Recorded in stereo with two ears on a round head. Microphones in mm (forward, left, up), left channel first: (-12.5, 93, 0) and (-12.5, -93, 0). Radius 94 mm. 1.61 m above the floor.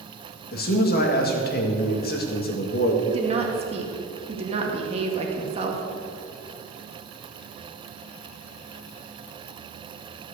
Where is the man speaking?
50° left (ahead or behind), 1.8 m.